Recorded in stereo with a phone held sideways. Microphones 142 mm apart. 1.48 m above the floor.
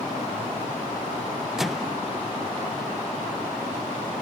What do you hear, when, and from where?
1.6 s a microwave: centre (ahead or behind), 0.7 m